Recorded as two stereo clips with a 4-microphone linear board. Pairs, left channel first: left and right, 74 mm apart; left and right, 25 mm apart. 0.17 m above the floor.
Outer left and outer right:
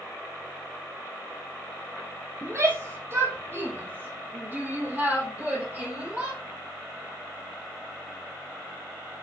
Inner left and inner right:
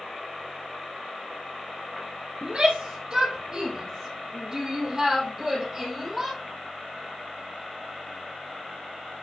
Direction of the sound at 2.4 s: 40° right (ahead or behind).